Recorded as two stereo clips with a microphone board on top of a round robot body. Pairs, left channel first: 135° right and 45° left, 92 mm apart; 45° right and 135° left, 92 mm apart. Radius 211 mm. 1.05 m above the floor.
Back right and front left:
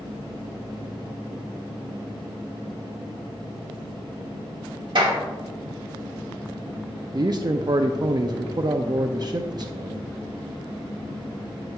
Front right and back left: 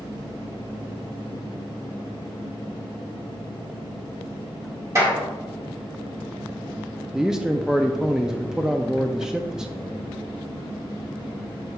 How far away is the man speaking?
About 0.6 m.